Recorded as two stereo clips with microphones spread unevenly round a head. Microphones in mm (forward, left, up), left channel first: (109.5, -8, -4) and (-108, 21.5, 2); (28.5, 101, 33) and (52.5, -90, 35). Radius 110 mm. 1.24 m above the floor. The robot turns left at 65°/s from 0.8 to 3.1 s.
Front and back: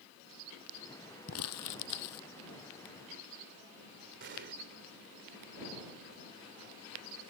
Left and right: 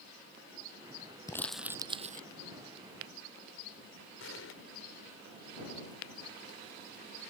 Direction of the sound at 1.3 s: 25° left.